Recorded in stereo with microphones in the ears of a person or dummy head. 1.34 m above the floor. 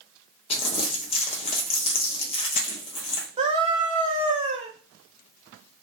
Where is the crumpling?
30° left (ahead or behind), 0.5 m.